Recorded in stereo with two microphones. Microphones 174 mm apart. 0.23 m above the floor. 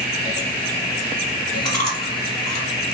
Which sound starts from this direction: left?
Chewing, at 1.6 s.